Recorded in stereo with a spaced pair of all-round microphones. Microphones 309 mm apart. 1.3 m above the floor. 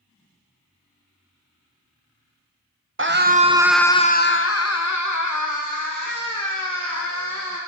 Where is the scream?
40° right (ahead or behind), 0.9 m; by 7.6 s 85° left, 3 m.